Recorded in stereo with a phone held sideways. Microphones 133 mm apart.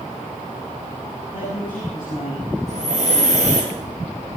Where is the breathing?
60° right (ahead or behind), 4 m.